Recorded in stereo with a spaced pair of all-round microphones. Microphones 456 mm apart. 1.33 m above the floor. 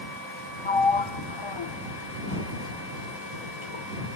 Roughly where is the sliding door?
Left.